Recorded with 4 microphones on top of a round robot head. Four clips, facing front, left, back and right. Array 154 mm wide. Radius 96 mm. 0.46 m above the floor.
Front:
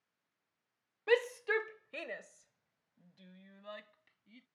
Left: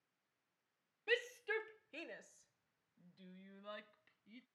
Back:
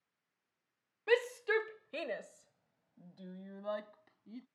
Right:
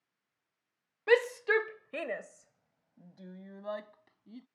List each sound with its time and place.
1.1 s a shout: 90° right; by 4.5 s 135° right